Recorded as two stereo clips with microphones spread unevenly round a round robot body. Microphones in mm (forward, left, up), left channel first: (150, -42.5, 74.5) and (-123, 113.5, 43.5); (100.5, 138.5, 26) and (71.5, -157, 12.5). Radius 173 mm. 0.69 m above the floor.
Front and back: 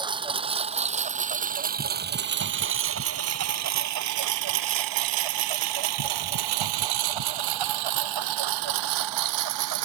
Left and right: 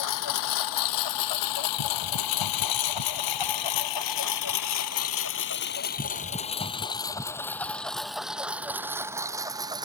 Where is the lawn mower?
75° left; by 9.9 s 175° right.